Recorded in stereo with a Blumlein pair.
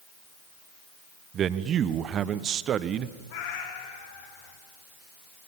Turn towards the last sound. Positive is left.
turn(degrees=50)